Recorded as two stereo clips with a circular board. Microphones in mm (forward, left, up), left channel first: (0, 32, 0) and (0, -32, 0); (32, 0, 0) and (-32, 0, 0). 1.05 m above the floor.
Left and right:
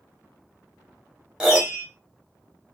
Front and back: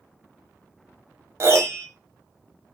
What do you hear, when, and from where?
1.4 s a piano: 165° right, 0.8 m